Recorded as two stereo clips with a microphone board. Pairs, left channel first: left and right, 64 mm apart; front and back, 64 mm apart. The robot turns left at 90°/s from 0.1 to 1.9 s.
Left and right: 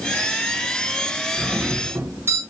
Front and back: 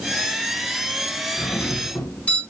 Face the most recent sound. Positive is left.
turn(degrees=-65)